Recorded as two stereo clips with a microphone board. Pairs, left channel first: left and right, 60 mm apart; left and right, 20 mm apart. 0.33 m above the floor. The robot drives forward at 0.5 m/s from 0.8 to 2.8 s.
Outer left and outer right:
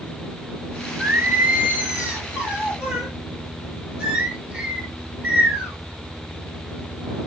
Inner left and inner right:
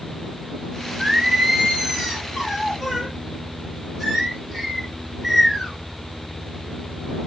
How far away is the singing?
About 1.6 m.